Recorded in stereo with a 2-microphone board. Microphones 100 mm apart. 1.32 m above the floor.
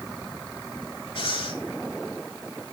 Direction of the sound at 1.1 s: 65° left (ahead or behind).